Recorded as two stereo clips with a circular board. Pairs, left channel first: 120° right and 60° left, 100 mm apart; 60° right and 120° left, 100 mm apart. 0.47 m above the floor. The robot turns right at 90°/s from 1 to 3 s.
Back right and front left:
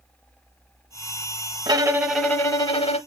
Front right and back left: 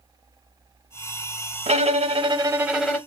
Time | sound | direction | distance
1.7 | a violin | 105° left | 0.7 m